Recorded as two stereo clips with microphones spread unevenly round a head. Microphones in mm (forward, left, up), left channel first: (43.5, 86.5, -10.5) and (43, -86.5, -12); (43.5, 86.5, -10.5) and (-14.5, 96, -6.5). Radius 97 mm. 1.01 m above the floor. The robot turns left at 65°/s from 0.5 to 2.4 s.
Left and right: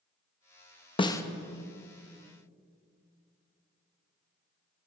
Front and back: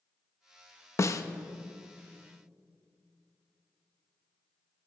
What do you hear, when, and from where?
1.0 s a snare drum: 30° left, 0.9 m; by 1.2 s 15° left, 0.9 m